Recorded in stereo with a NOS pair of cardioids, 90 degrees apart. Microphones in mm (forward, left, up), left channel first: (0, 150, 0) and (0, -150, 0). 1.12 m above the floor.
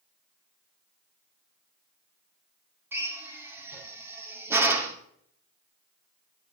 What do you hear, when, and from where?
2.9 s a drill: 5° right, 2 m